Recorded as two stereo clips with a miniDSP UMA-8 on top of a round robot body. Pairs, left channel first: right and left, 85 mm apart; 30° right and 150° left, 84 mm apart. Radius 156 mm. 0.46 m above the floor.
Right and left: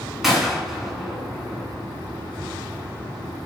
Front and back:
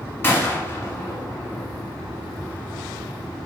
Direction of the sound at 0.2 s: 5° left.